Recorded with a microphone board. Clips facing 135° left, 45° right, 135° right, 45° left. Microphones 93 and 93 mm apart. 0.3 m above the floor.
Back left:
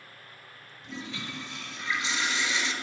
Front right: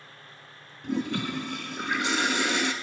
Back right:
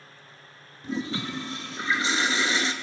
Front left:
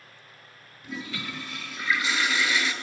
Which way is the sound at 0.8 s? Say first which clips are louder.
Front right 11 dB, back right 6 dB; 75° right.